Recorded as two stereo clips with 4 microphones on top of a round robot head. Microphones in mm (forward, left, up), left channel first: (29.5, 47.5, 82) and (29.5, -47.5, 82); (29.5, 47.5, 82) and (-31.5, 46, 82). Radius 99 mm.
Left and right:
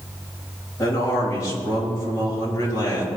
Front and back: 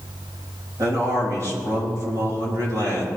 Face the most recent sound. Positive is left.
turn(degrees=150)